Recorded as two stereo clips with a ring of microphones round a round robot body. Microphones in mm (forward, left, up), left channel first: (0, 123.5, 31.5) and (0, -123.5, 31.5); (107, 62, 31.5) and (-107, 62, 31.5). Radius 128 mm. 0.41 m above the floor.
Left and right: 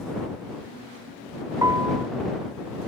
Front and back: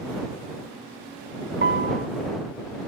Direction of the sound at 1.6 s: 165° right.